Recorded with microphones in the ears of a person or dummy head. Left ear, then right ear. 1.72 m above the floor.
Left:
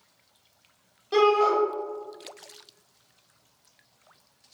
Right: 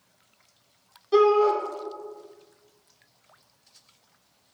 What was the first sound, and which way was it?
A shout, 10° left (ahead or behind).